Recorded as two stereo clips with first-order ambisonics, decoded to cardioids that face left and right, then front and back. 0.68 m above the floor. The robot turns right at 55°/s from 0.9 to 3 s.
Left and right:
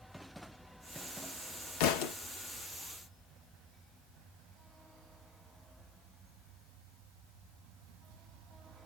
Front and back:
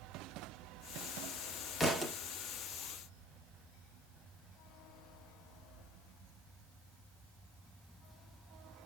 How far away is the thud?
About 0.7 m.